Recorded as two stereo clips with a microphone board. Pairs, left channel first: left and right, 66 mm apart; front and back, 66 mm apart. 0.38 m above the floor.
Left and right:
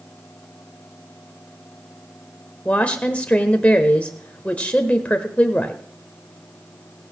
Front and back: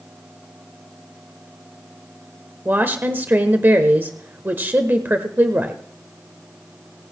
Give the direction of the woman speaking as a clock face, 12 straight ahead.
7 o'clock.